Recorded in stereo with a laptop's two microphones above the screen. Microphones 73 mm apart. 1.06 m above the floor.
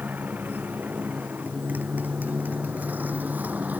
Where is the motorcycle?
20° right (ahead or behind).